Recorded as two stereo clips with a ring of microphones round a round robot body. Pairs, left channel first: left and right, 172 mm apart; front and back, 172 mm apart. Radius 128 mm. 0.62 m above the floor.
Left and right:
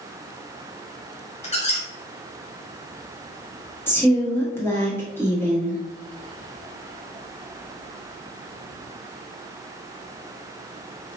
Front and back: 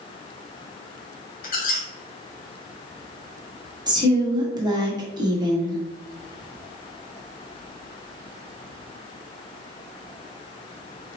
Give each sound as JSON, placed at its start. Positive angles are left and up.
{"t": 1.4, "sound": "a squeak", "azimuth_deg": 35, "distance_m": 1.2}
{"t": 3.9, "sound": "a woman speaking", "azimuth_deg": 150, "distance_m": 1.2}